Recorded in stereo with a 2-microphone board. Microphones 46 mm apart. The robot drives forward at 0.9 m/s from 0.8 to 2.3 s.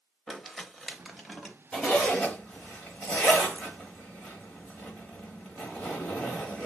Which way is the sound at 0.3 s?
Centre (ahead or behind).